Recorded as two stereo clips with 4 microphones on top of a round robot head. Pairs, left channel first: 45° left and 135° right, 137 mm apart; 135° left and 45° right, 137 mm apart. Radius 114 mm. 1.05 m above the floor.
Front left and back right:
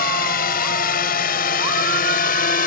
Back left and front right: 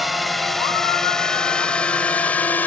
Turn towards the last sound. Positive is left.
turn(degrees=60)